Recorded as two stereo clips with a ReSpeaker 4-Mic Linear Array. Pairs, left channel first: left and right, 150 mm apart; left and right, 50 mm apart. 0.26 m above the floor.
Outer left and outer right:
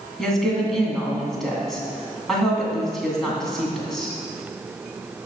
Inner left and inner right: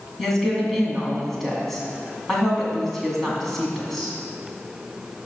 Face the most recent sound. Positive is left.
turn(degrees=0)  # may be behind; listen again after turning